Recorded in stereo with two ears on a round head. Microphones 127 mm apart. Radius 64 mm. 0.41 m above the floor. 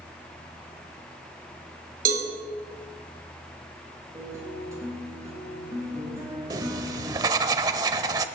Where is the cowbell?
70° right (ahead or behind), 3.5 m.